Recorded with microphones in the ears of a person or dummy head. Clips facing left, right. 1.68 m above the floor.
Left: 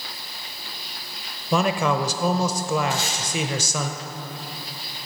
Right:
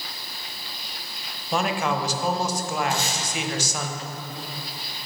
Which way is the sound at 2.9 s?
35° right (ahead or behind).